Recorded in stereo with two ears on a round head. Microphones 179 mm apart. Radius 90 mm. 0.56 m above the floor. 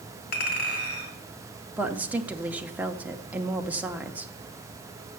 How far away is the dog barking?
No dog barking in this recording.